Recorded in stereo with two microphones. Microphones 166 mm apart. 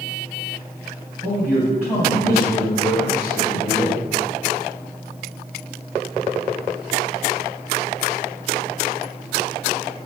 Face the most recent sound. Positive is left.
turn(degrees=25)  # may be behind; listen again after turning